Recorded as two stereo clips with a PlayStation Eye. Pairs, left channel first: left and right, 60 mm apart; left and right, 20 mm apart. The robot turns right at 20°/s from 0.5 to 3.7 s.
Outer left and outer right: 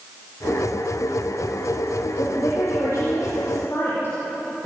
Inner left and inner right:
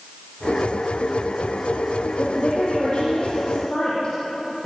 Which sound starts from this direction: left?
A woman speaking, at 2.2 s.